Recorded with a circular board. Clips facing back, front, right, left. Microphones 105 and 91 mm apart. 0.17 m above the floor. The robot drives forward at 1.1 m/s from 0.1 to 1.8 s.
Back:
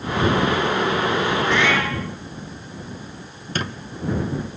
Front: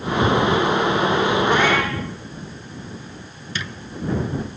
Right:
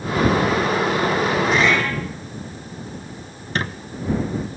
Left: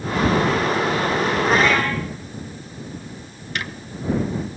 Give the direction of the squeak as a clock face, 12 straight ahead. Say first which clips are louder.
Back 5 dB, right 4 dB; 5 o'clock.